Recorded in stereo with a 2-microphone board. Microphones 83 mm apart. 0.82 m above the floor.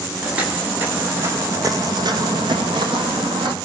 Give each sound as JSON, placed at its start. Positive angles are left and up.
{"t": 0.2, "sound": "footsteps", "side_deg": -15, "distance_m": 3.0}